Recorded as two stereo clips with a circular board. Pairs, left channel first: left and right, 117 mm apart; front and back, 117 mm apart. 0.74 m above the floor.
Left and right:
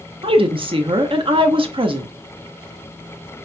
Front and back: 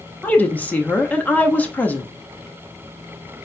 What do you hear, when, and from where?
0.2 s a woman speaking: 75° right, 0.7 m